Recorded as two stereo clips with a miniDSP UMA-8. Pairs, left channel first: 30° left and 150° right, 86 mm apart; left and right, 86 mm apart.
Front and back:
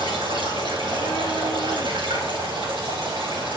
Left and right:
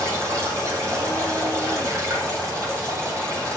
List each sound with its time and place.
0.0 s running water: 145° right, 4 m